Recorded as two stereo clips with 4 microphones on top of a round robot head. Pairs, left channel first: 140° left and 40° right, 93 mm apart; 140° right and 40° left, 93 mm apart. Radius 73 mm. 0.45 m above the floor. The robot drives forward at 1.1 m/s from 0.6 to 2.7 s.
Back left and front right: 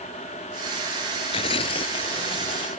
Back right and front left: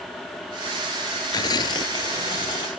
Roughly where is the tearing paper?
Behind.